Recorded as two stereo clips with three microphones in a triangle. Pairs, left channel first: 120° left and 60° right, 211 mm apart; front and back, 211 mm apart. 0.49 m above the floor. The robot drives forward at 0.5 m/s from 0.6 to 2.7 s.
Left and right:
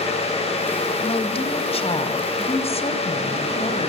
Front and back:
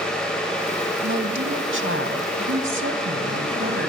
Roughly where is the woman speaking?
Behind.